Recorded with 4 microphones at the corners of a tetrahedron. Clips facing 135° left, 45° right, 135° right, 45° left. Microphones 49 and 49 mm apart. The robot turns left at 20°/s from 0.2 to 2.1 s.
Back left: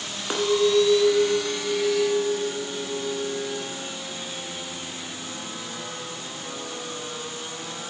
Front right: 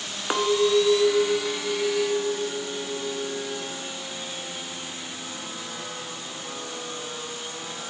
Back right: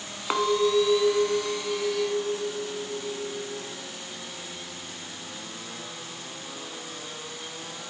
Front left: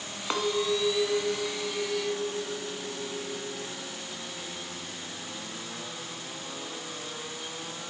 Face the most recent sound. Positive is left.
turn(degrees=-110)